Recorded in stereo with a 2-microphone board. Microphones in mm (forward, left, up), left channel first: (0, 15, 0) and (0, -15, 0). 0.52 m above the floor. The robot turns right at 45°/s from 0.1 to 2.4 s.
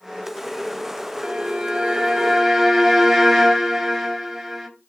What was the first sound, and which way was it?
A violin, 20° right (ahead or behind).